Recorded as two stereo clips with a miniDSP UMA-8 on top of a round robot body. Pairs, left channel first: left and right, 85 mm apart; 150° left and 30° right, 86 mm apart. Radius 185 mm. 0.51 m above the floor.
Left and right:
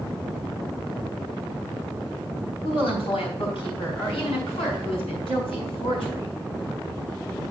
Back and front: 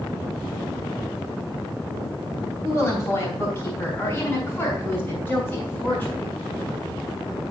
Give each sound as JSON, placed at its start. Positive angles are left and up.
{"t": 2.6, "sound": "a woman speaking", "azimuth_deg": 90, "distance_m": 4.0}